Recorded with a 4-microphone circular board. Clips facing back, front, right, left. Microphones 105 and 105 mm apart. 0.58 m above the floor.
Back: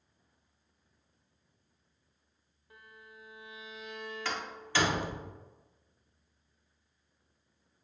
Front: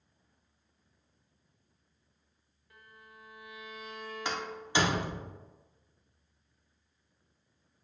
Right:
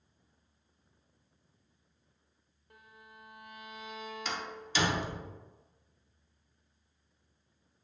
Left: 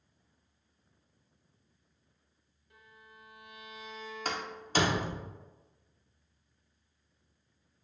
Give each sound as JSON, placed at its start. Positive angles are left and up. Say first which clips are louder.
{"t": 2.7, "sound": "a violin", "louder": "back 1 dB, right 2 dB", "azimuth_deg": -115, "distance_m": 0.6}
{"t": 4.2, "sound": "a door slam", "louder": "front 3 dB, left 5 dB", "azimuth_deg": 65, "distance_m": 0.7}